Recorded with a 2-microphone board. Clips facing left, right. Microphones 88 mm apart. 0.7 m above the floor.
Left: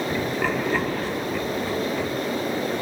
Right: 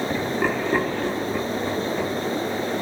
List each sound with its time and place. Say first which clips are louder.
0.1 s laughter: right 1 dB; 15° right (ahead or behind), 1.1 m